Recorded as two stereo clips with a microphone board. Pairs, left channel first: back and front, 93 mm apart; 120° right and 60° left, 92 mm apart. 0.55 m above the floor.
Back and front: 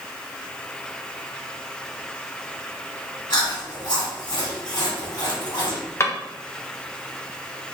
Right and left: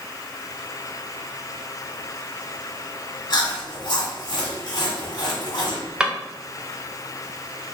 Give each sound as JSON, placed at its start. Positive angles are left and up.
{"t": 3.3, "sound": "chewing", "azimuth_deg": -145, "distance_m": 1.8}
{"t": 6.0, "sound": "a drawer", "azimuth_deg": 135, "distance_m": 0.7}